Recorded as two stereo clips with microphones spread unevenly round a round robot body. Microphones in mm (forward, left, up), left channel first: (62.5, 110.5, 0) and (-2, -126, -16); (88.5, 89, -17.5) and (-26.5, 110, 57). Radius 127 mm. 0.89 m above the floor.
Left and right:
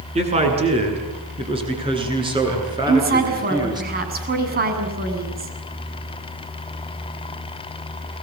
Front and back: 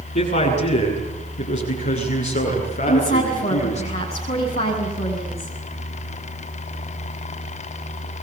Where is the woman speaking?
55° right, 7.5 m.